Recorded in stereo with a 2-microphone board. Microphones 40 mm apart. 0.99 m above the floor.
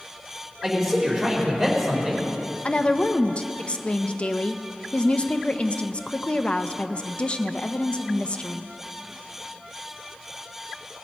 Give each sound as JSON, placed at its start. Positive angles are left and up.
{"t": 0.6, "sound": "a man speaking", "side_deg": -5, "distance_m": 3.0}
{"t": 2.6, "sound": "a woman speaking", "side_deg": 25, "distance_m": 0.6}